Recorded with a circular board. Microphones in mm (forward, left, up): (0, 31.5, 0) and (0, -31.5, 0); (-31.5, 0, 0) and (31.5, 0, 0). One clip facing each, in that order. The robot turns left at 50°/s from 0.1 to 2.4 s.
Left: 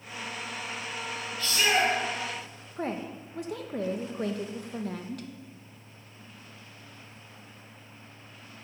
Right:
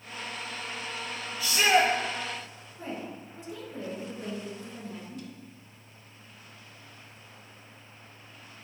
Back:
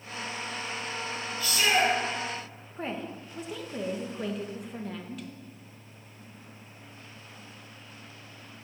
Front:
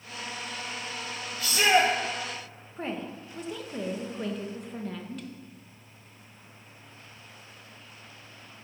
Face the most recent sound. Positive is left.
turn(degrees=90)